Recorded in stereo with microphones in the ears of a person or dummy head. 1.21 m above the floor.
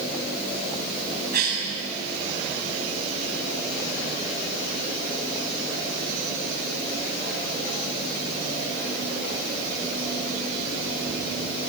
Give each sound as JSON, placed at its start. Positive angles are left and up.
{"t": 1.3, "sound": "a cough", "side_deg": -55, "distance_m": 8.0}